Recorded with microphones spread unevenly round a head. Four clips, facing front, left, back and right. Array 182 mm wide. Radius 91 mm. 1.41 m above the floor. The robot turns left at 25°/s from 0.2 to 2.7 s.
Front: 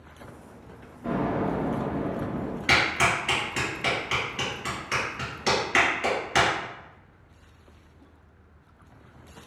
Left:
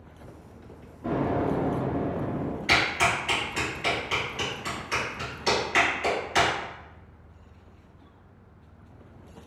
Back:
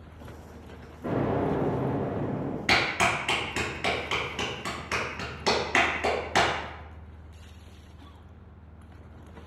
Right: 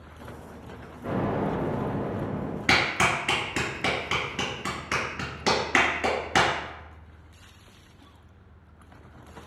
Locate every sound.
1.0 s an explosion: 165° left, 1.9 m; by 2.6 s 125° left, 1.9 m
2.7 s a clap: 90° right, 1.5 m